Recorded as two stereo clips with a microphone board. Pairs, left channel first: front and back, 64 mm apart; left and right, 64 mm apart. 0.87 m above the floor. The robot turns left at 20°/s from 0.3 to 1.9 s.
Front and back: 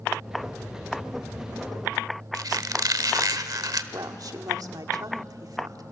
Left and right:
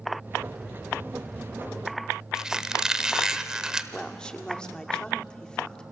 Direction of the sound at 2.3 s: 170° right.